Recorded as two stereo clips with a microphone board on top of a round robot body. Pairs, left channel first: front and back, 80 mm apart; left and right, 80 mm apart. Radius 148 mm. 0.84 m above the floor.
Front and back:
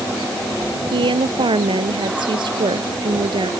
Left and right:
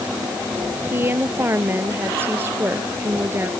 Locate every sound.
0.9 s a woman speaking: 155° right